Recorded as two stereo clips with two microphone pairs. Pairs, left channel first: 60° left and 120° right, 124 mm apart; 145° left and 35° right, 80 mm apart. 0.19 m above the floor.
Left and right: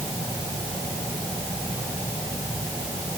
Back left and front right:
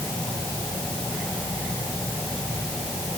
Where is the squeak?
I don't hear a squeak.